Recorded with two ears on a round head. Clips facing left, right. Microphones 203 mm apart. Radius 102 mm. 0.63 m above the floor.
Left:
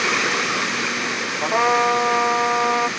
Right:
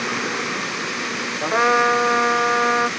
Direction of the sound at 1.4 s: 15° right (ahead or behind).